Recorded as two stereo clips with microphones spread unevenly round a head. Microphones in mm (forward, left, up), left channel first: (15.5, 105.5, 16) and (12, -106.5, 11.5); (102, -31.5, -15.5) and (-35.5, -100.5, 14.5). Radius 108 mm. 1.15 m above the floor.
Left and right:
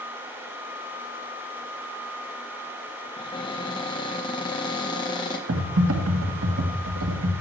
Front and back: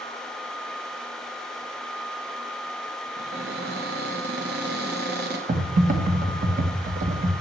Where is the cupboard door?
160° left, 1.4 m.